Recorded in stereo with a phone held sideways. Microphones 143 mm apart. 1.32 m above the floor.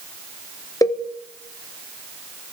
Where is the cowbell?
25° left (ahead or behind), 0.7 m.